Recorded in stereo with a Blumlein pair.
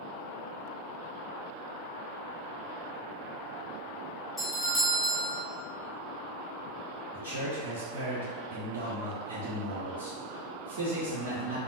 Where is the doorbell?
Straight ahead, 0.9 m.